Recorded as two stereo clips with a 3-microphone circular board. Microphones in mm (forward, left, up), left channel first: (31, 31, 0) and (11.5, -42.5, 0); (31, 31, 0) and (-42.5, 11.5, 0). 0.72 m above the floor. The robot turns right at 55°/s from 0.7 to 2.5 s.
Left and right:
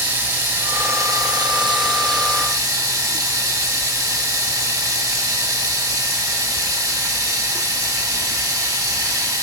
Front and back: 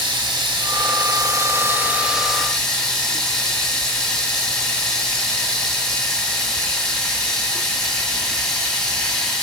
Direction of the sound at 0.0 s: 165° right.